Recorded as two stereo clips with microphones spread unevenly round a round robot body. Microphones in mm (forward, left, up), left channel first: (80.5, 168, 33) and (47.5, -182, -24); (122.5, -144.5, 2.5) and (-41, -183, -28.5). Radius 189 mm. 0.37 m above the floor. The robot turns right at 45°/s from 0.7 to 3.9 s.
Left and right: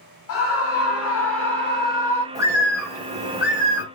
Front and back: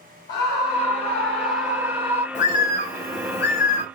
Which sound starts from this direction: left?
A scream, at 0.3 s.